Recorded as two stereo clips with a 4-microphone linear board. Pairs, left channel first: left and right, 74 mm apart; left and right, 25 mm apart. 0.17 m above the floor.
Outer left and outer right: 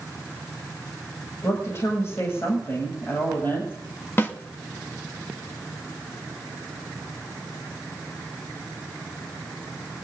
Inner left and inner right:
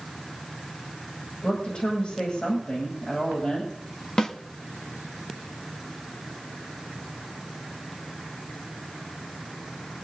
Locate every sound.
1.4 s a woman speaking: 40° left (ahead or behind), 9.5 m; by 3.7 s 35° left (ahead or behind), 10 m
4.2 s a snare drum: 30° left (ahead or behind), 1.8 m